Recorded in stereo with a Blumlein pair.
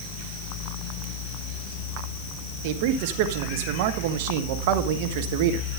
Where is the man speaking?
50° right, 1.1 m.